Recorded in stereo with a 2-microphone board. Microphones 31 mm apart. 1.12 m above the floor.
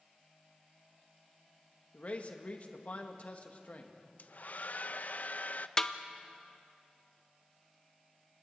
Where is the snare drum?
20° left (ahead or behind), 0.8 m.